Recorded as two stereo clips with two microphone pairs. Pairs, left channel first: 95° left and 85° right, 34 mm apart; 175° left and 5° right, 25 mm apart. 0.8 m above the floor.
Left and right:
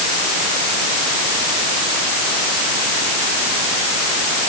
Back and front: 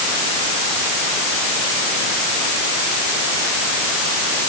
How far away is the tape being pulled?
No tape being pulled in this recording.